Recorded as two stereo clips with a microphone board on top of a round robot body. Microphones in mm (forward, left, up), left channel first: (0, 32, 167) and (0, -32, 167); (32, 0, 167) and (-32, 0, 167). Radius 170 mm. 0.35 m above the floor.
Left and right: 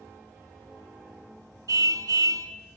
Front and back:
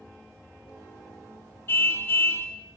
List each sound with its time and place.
1.7 s a car horn: 55° right, 2.5 m